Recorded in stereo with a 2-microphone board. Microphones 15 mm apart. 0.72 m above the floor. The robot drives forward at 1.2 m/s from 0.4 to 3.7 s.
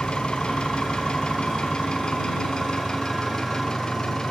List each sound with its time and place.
0.0 s an engine running: 85° left, 4.5 m; by 4.3 s 50° left (ahead or behind), 6 m